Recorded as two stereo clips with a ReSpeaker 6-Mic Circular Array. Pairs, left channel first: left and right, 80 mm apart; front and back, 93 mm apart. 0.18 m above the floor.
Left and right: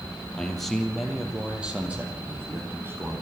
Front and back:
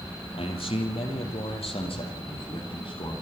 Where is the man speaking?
10° left, 4.5 m; by 3.1 s 30° right, 7 m.